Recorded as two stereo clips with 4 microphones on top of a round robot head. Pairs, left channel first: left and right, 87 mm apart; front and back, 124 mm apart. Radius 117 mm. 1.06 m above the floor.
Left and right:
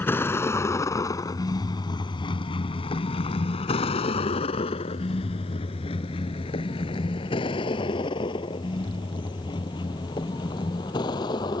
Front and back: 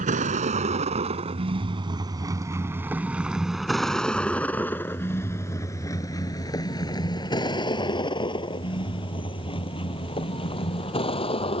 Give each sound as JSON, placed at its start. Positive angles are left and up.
{"t": 0.0, "sound": "a vehicle", "azimuth_deg": 155}